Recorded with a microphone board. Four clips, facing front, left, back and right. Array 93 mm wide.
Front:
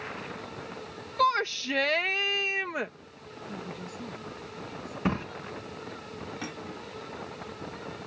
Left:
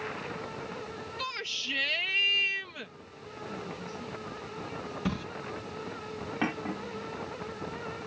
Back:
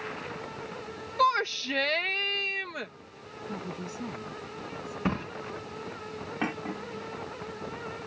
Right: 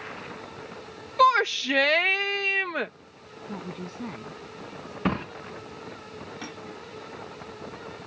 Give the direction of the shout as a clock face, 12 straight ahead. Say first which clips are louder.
Right 22 dB, even; 3 o'clock.